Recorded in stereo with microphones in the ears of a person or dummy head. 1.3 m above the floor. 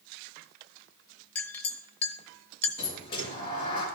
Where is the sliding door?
30° left (ahead or behind), 3 m.